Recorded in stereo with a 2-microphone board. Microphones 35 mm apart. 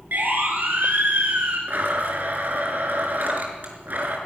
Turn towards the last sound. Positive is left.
turn(degrees=-60)  # may be behind; listen again after turning